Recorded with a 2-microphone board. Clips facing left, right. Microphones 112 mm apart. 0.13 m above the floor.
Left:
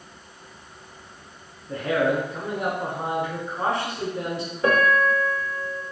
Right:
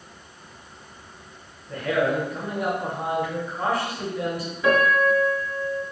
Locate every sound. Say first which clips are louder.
1.7 s a man speaking: left 1 dB; 25° left (ahead or behind), 1.2 m
4.6 s a piano: right 1 dB; 45° left (ahead or behind), 1.0 m